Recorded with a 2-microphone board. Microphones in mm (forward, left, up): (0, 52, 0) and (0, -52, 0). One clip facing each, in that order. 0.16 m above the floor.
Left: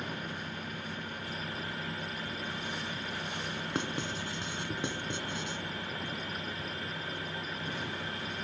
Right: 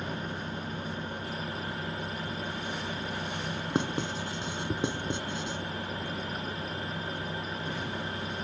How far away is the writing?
About 1.6 m.